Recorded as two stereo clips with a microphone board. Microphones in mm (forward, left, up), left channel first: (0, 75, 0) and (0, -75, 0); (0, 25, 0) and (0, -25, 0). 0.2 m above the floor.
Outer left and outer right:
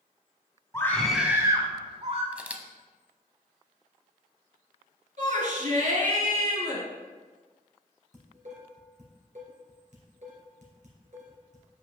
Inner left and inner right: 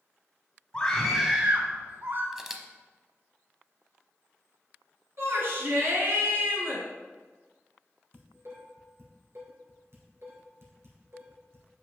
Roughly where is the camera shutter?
Centre.